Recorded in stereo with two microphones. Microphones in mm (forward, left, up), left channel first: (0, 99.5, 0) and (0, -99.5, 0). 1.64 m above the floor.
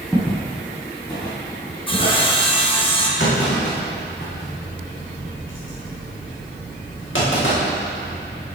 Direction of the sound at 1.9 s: 25° left (ahead or behind).